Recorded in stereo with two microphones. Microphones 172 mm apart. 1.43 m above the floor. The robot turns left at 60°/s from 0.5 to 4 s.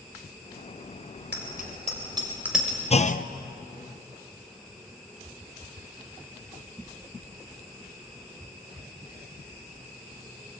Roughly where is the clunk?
Left.